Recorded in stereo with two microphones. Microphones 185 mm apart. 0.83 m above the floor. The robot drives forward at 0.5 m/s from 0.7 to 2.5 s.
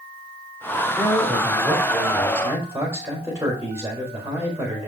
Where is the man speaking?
15° right (ahead or behind), 3.5 m; by 4.9 s 10° right (ahead or behind), 4 m.